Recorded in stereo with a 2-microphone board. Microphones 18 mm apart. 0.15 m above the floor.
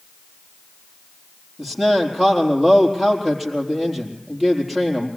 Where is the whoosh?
I don't hear a whoosh.